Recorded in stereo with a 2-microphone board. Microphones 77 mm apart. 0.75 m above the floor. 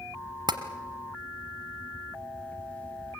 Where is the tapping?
65° right (ahead or behind), 1.2 m.